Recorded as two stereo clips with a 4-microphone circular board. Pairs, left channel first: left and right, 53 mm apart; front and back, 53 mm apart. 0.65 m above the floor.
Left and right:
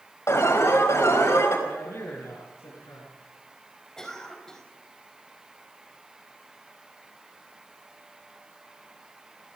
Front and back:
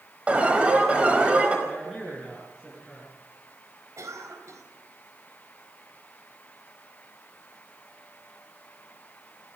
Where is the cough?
170° left, 4 m.